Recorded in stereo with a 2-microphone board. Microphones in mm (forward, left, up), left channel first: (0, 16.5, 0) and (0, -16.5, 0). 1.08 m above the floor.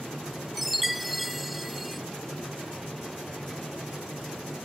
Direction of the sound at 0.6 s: Centre (ahead or behind).